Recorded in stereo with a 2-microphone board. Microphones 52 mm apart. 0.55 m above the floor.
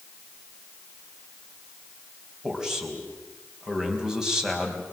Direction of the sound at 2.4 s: 10° right (ahead or behind).